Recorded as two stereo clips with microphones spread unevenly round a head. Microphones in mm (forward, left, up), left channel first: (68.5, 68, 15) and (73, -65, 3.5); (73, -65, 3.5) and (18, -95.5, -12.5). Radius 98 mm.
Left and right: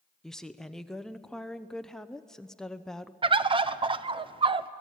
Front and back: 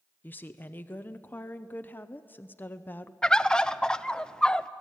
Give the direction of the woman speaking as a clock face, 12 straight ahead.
12 o'clock.